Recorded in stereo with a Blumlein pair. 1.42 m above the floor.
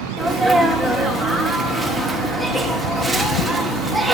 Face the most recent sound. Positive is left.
turn(degrees=-5)